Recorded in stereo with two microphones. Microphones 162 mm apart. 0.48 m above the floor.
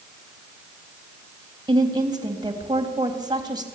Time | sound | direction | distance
1.7 | a woman speaking | 25° right (ahead or behind) | 3.5 m